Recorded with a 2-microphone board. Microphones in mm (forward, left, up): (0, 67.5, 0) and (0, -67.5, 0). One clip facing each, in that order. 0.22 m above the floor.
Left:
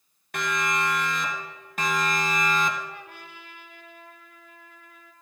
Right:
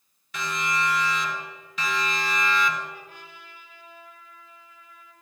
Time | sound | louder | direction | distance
0.3 | a siren | left 1 dB | 65° left (ahead or behind) | 3 m
2.9 | a trumpet | left 1 dB | 70° left (ahead or behind) | 2.5 m